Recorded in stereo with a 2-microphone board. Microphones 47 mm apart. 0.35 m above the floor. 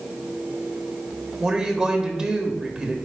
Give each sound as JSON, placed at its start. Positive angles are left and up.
{"t": 1.4, "sound": "a woman speaking", "side_deg": -15, "distance_m": 1.2}